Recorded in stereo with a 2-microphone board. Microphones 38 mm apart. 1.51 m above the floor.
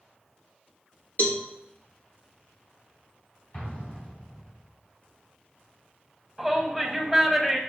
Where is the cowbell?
55° left (ahead or behind), 1.8 m.